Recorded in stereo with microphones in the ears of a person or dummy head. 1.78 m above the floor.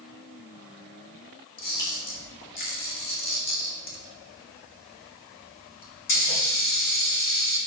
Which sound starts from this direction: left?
A camera shutter, at 1.6 s.